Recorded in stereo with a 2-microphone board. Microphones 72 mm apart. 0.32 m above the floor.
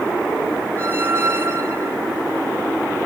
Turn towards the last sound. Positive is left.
turn(degrees=-30)  # may be behind; listen again after turning